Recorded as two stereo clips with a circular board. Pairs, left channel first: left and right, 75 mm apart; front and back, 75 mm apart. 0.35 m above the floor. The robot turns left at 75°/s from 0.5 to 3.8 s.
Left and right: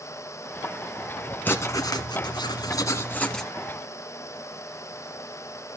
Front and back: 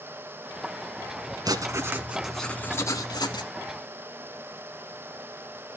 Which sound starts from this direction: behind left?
Writing, at 1.4 s.